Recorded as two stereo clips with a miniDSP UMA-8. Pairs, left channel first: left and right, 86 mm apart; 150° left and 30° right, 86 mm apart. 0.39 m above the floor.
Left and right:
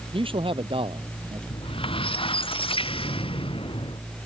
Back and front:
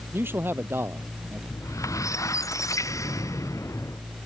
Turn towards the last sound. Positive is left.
turn(degrees=95)